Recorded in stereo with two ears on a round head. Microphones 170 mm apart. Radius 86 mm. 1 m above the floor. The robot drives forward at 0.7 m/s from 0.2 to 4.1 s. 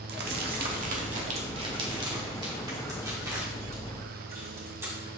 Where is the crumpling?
60° right (ahead or behind), 1.0 m; by 5.0 s 15° right (ahead or behind), 3 m.